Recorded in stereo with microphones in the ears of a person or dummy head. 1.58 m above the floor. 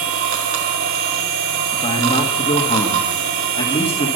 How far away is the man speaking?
About 2 m.